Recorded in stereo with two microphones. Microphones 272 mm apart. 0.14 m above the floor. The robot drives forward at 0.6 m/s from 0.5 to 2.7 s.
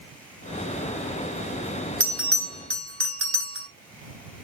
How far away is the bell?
About 1.3 m.